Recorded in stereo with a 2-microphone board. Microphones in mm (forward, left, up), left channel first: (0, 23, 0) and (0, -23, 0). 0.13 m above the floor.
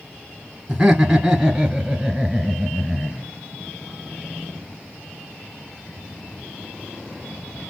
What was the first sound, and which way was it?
Laughter, 10° right (ahead or behind).